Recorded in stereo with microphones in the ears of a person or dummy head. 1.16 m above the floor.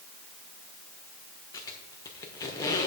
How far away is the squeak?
About 1.2 m.